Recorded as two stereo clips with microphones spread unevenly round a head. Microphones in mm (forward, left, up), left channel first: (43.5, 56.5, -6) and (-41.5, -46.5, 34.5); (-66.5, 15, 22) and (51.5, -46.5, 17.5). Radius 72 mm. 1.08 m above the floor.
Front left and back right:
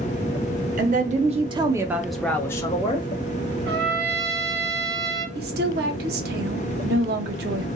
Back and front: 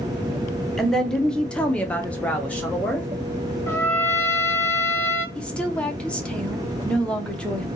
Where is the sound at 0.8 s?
120° right, 0.8 m; by 3.1 s 70° left, 0.9 m.